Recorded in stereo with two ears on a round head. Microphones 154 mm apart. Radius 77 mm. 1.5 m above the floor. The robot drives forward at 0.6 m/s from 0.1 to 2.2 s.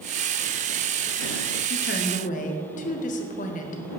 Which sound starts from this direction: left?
A woman speaking, at 1.7 s.